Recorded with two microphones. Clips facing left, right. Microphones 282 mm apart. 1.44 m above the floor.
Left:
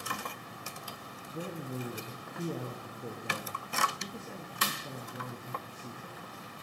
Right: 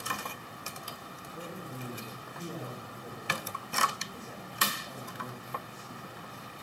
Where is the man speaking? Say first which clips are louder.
Left 5 dB; 50° left (ahead or behind), 0.8 m.